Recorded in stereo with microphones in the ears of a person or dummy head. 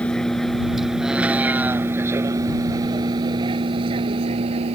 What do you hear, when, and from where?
0.0 s a vehicle: 5° left (ahead or behind); by 4.8 s 35° right (ahead or behind)